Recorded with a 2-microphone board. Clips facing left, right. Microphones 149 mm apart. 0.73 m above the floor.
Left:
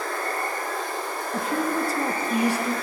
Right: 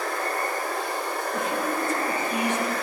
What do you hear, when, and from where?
0.0 s running water: 85° right, 1.5 m
1.3 s a woman speaking: 35° left (ahead or behind), 0.8 m